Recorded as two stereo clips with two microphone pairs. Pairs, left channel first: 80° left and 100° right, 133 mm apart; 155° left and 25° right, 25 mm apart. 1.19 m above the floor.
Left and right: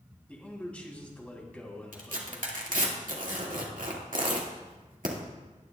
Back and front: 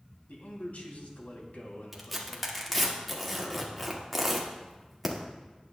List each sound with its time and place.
0.3 s a man speaking: 160° left, 2.5 m
1.9 s tearing paper: 115° right, 1.9 m